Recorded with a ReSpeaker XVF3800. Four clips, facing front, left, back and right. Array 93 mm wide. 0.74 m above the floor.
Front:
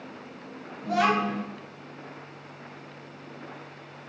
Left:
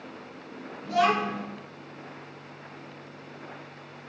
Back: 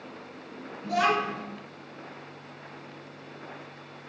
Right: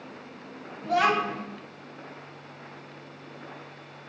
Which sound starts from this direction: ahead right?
A child speaking, at 0.8 s.